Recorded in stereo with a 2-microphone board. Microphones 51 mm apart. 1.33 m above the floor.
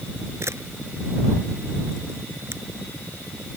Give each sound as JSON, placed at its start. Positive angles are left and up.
{"t": 0.4, "sound": "a camera shutter", "side_deg": -60}